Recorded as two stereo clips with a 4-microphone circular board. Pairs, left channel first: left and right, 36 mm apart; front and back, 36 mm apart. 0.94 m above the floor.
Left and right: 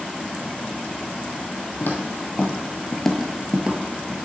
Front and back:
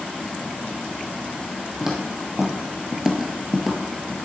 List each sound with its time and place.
1.8 s footsteps: 105° left, 1.7 m; by 4.2 s 90° right, 1.3 m